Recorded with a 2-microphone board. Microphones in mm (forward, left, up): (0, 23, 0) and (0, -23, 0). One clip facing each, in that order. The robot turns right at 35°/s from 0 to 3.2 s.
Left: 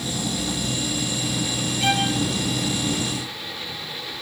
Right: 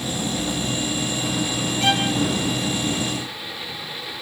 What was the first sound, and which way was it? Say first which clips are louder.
A violin: right 1 dB; 5° left (ahead or behind).